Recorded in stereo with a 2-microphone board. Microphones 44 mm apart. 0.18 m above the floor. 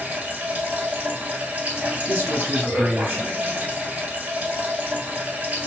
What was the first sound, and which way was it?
Running water, 35° right (ahead or behind).